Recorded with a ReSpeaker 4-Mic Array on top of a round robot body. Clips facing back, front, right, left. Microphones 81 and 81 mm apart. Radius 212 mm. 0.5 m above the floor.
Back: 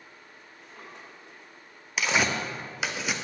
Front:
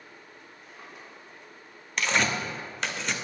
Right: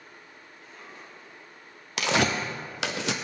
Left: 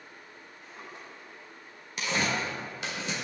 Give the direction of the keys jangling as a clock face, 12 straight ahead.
I don't hear keys jangling.